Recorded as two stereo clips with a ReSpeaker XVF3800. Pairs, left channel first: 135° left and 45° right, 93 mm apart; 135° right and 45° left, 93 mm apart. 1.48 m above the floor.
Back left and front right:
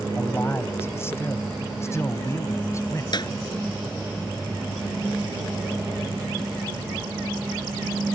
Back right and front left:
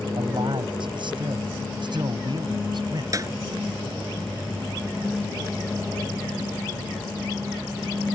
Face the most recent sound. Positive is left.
turn(degrees=95)